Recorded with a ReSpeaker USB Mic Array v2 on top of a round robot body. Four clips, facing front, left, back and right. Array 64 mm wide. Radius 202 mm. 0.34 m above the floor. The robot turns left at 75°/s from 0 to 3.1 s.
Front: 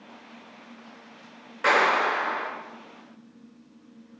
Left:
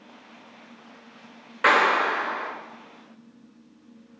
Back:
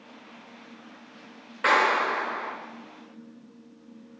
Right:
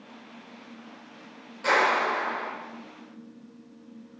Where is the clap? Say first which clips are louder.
Left 3 dB, front 1 dB; 95° left, 6 m; by 2.5 s 30° left, 6 m.